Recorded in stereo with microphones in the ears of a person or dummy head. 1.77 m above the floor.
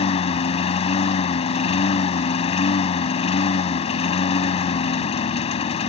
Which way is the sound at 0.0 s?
30° left (ahead or behind).